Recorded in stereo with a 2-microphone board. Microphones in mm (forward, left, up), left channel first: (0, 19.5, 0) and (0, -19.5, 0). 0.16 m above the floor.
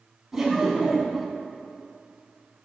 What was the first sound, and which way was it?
Laughter, 5° right (ahead or behind).